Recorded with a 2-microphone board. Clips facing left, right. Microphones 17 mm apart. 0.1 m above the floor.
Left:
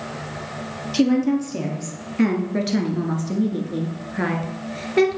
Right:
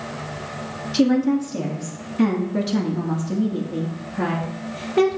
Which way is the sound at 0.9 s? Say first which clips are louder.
Even; 15° left (ahead or behind).